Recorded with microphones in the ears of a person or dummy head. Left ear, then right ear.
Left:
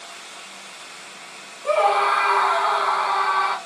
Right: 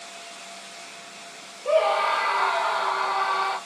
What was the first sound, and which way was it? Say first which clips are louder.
A scream: left 3 dB; 30° left (ahead or behind).